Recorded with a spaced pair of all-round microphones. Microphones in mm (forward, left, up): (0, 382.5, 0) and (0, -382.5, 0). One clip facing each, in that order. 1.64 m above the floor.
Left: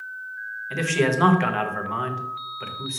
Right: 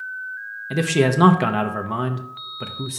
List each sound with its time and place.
0.7 s a man speaking: 65° right (ahead or behind), 0.9 m